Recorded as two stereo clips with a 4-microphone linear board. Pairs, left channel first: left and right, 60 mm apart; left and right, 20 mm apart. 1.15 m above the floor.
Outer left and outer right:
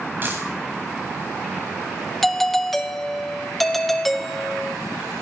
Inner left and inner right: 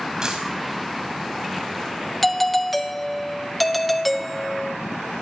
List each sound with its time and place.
0.2 s a dropped coin: 35° right (ahead or behind), 4 m
2.2 s a doorbell: 5° left (ahead or behind), 1.1 m